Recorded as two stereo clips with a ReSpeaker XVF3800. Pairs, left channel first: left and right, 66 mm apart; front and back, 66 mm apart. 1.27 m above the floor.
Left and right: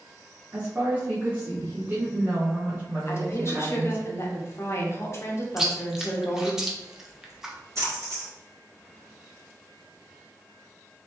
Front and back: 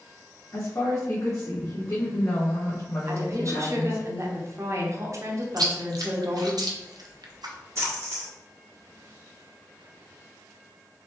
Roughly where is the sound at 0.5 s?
Ahead right.